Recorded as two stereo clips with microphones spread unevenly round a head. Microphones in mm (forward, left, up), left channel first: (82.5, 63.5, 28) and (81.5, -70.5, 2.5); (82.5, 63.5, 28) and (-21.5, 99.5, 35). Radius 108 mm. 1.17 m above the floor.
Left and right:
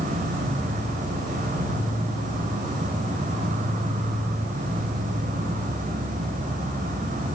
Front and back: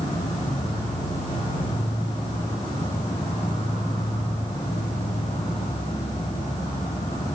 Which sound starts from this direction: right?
An insect, at 0.0 s.